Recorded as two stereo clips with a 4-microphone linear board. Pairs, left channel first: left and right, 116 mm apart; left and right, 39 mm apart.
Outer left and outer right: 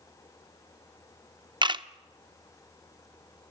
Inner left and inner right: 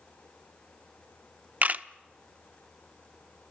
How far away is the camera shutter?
About 0.7 m.